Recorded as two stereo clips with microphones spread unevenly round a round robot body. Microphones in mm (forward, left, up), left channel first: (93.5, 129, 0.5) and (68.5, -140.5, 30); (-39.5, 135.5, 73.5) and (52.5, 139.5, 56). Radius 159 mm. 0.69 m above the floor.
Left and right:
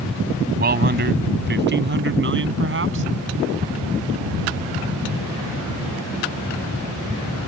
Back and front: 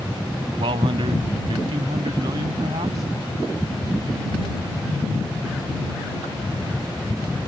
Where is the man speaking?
45° right; by 3.0 s 55° right.